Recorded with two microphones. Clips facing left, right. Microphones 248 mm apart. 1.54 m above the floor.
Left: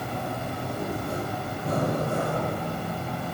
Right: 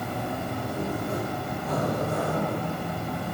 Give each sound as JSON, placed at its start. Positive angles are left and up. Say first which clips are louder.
{"t": 0.0, "sound": "an insect", "louder": "right 1 dB", "side_deg": -20, "distance_m": 1.0}
{"t": 1.6, "sound": "breathing", "louder": "left 1 dB", "side_deg": 50, "distance_m": 0.7}